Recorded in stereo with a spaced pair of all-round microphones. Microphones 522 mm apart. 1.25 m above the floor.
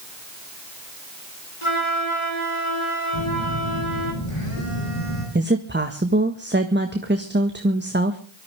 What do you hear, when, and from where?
1.6 s a flute: 65° left (ahead or behind), 4 m
3.1 s a phone buzzing: 65° left (ahead or behind), 9.5 m
5.3 s a woman speaking: 20° right (ahead or behind), 1.6 m